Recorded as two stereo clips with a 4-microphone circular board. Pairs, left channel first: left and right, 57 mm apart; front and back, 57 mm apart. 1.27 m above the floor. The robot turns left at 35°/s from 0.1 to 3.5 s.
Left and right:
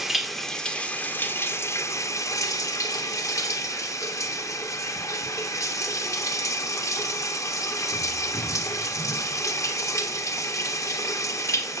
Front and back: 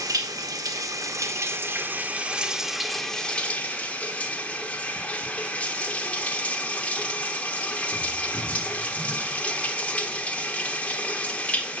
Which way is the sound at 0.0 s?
175° right.